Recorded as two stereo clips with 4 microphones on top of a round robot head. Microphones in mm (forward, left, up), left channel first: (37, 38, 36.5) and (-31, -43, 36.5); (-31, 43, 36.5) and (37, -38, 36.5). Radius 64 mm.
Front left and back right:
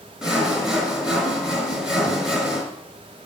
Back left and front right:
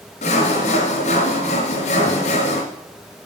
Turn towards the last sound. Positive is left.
turn(degrees=145)